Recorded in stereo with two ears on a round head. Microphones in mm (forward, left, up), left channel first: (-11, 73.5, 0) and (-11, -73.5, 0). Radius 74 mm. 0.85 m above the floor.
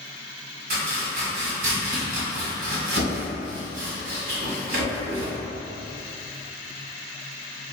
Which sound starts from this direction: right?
Chopping, at 0.7 s.